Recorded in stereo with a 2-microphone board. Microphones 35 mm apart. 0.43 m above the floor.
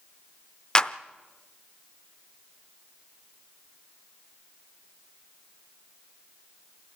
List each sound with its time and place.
0.8 s a clap: 20° left (ahead or behind), 0.6 m